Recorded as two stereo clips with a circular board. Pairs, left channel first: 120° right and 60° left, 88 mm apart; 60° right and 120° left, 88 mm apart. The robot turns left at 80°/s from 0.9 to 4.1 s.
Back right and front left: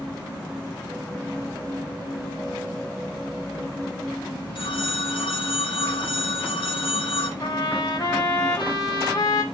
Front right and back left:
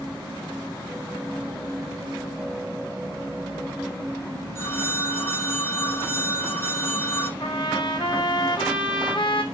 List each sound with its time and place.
4.5 s a phone ringing: 120° right, 2 m
7.4 s a trumpet: 90° right, 3 m